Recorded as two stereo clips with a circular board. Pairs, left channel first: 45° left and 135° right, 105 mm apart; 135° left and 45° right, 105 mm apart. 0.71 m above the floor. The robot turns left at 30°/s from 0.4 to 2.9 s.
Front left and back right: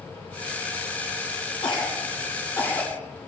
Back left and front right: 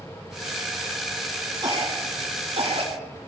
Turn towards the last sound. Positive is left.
turn(degrees=-30)